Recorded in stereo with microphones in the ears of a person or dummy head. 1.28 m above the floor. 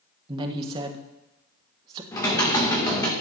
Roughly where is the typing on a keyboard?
Centre.